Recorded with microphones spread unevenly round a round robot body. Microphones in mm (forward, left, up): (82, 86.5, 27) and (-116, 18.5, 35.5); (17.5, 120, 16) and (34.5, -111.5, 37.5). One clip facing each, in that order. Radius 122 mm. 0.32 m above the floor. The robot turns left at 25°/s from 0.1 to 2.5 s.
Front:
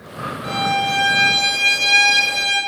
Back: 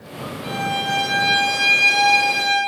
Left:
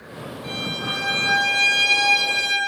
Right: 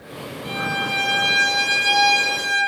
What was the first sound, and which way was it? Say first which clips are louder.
A violin: front 3 dB, right 2 dB; 95° left.